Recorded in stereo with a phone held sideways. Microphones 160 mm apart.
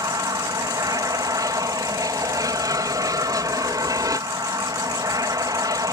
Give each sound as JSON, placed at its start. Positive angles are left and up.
{"t": 0.0, "sound": "an aircraft", "side_deg": -20}